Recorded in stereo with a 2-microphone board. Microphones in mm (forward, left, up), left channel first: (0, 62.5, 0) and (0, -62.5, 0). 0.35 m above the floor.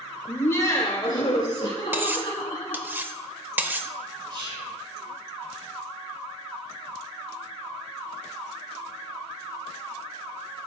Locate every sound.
0.3 s laughter: 10° left (ahead or behind), 0.9 m; by 2.9 s 40° left (ahead or behind), 3 m
1.9 s cutlery clinking: 15° right (ahead or behind), 0.6 m
4.3 s whispering: 40° right (ahead or behind), 2 m